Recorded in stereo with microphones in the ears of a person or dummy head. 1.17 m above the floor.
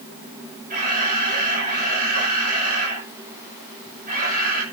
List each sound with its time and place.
0.7 s a camera shutter: 50° right (ahead or behind), 6 m